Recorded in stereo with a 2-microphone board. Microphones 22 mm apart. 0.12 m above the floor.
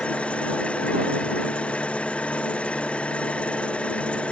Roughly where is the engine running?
Left.